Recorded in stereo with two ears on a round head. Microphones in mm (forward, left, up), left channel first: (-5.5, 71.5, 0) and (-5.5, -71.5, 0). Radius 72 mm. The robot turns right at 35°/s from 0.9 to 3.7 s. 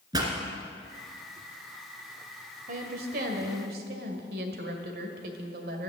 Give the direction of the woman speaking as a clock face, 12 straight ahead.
4 o'clock.